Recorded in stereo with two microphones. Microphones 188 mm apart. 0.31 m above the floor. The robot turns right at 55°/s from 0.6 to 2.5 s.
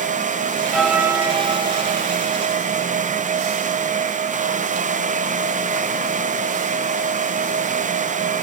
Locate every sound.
0.7 s a bell: straight behind, 1.5 m; by 1.9 s 115° right, 1.5 m